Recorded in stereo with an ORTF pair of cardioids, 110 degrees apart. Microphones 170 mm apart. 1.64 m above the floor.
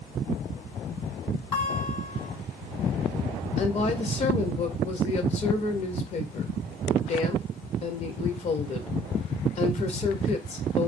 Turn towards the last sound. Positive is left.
turn(degrees=40)